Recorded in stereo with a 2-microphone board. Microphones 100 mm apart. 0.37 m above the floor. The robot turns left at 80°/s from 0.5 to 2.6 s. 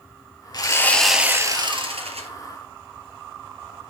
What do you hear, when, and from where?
0.5 s sawing: 40° left, 1.6 m; by 2.3 s 100° right, 1.6 m